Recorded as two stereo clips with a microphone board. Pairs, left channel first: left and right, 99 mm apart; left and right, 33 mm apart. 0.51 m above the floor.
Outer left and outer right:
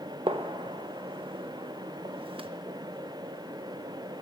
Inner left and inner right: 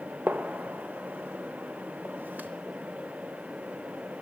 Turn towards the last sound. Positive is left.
turn(degrees=-75)  # may be behind; listen again after turning